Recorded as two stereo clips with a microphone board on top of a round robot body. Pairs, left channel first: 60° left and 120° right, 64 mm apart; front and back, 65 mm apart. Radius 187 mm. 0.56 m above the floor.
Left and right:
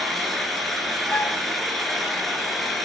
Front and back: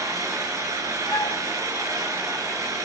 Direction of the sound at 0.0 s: 145° left.